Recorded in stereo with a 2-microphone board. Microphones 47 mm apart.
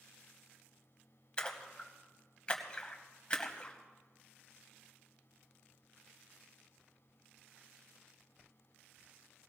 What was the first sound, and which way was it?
A splash, 25° left (ahead or behind).